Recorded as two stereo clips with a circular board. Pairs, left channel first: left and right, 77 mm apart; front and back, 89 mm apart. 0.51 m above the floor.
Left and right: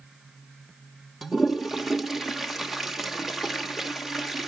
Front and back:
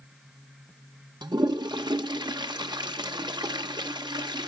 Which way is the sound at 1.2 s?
175° right.